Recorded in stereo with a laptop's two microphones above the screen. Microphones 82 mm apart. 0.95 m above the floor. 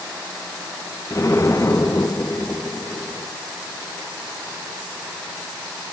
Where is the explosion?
35° left (ahead or behind), 3 m.